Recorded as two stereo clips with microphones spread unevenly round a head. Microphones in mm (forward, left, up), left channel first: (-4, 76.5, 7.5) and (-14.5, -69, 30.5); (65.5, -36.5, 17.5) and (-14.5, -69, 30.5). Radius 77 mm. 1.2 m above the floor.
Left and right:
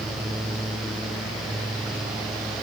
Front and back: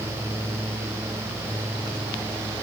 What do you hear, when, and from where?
Only background noise.